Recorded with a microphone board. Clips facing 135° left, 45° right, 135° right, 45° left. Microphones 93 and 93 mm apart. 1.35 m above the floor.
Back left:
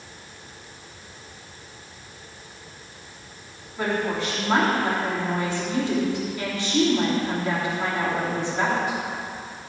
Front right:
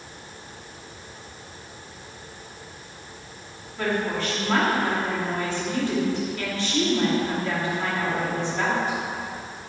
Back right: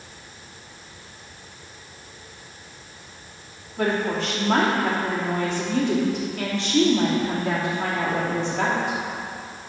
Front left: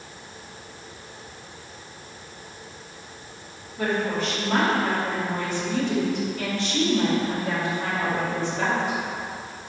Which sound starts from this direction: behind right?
A woman speaking, at 3.8 s.